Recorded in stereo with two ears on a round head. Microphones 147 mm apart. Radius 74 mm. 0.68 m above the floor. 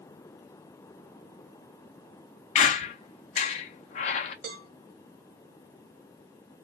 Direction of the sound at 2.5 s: 40° left (ahead or behind).